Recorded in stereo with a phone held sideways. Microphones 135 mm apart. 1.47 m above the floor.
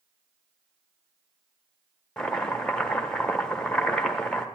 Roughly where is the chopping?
Centre.